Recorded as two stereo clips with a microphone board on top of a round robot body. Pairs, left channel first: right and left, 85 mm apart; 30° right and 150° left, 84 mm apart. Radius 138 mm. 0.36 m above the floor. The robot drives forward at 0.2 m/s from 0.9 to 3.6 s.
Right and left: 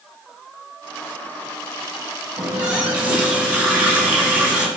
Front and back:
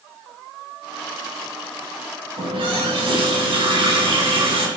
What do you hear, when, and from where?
2.4 s a running tap: 165° left, 4.5 m